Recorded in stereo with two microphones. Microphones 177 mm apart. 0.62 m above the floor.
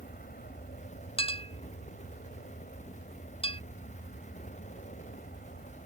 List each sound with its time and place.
0.0 s an aircraft: 60° left (ahead or behind)
1.2 s a clink: 35° left (ahead or behind)